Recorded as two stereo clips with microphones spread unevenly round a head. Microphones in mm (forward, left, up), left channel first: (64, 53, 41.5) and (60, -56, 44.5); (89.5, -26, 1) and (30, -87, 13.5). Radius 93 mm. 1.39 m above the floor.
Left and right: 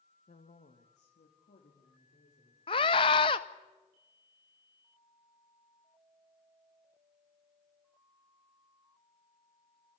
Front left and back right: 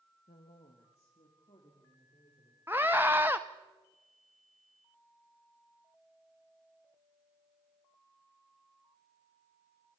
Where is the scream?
145° left, 0.6 m.